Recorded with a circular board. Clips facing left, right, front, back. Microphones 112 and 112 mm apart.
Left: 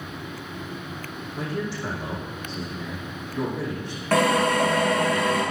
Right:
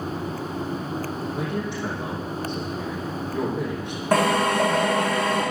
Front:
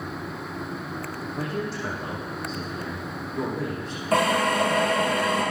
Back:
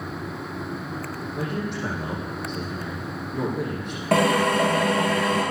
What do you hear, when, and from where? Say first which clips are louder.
1.3 s a man speaking: left 2 dB, back 1 dB; 160° right, 7.5 m
4.1 s a drill: even, back 2 dB; 165° right, 7.5 m